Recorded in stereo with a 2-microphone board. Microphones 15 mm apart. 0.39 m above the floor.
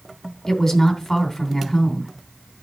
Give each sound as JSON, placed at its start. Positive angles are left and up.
{"t": 0.5, "sound": "a woman speaking", "side_deg": 25, "distance_m": 3.0}